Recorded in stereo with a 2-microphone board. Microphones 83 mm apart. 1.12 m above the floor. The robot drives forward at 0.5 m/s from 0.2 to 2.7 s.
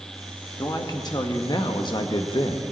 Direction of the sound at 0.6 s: 50° left (ahead or behind).